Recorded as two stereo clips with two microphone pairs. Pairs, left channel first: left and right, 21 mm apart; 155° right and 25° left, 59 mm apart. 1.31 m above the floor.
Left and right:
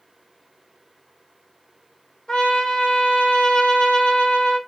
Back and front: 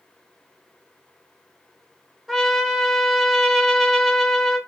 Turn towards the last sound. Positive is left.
turn(degrees=115)